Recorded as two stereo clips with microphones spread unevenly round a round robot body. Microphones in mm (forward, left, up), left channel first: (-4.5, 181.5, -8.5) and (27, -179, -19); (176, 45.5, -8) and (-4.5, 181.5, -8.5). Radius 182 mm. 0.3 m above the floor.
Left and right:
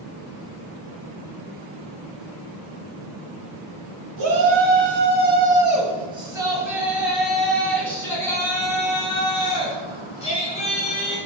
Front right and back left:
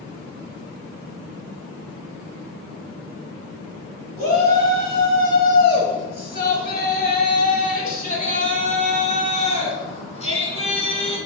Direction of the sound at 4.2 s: 75° right.